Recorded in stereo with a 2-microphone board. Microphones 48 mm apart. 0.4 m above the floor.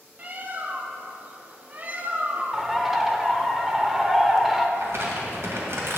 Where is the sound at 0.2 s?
35° right (ahead or behind), 0.8 m.